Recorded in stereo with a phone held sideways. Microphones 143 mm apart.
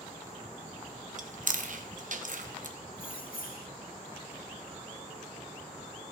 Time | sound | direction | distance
1.2 | chewing | 65° right (ahead or behind) | 1.1 m
2.9 | keys jangling | 80° left | 1.3 m